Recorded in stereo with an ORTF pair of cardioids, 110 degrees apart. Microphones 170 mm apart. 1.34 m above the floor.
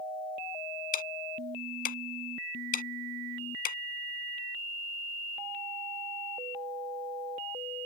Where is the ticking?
55° left.